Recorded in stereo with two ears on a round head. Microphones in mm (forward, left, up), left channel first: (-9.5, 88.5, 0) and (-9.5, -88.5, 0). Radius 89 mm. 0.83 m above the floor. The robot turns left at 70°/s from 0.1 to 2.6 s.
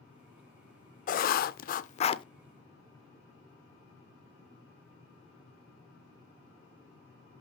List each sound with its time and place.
1.1 s writing: 115° left, 0.6 m; by 2.2 s 30° left, 0.6 m